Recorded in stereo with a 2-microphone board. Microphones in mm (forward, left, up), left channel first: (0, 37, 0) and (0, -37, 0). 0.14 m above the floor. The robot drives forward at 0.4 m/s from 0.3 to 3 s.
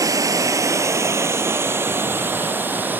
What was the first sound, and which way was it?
Running water, 50° right (ahead or behind).